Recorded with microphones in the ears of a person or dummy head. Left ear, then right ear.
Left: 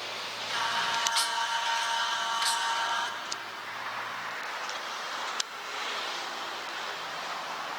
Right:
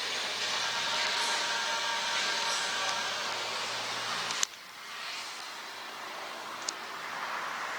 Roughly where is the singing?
Left.